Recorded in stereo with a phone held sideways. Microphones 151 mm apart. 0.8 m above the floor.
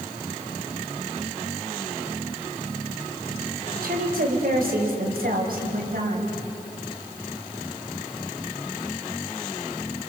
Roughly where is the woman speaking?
Right.